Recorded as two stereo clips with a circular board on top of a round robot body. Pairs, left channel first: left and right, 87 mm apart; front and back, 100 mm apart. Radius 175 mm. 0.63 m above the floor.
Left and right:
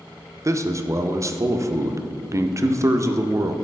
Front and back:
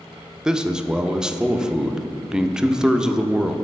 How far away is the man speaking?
About 0.6 m.